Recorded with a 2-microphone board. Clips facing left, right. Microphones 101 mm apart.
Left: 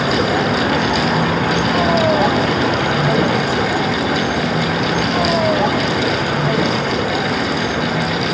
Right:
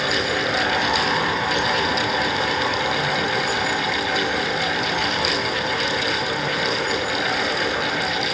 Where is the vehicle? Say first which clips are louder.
Left 7 dB; 60° left (ahead or behind); by 8.3 s 75° left (ahead or behind).